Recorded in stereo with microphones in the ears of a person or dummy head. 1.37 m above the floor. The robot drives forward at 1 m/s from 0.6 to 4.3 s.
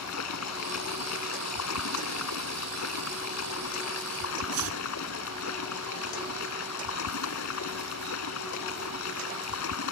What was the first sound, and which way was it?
Running water, 85° left.